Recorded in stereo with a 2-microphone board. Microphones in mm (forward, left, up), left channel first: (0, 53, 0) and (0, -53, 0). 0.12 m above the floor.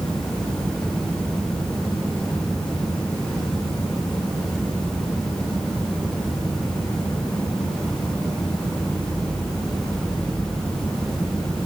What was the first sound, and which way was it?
Only background noise.